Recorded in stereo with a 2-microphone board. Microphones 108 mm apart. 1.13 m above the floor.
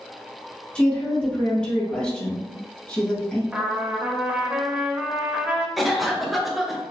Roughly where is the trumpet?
Centre.